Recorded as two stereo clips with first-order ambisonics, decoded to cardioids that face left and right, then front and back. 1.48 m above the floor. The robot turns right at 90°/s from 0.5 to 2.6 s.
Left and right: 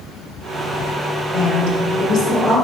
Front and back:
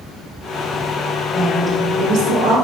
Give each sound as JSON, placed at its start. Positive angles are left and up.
{"t": 1.3, "sound": "a woman speaking", "azimuth_deg": 75, "distance_m": 1.7}